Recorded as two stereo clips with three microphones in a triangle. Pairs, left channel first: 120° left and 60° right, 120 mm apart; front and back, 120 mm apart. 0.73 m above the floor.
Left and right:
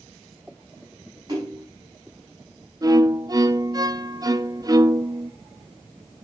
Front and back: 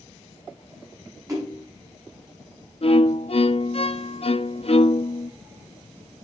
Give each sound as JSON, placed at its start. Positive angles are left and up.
{"t": 1.3, "sound": "a splash", "azimuth_deg": -120, "distance_m": 6.5}
{"t": 2.8, "sound": "a violin", "azimuth_deg": -10, "distance_m": 0.6}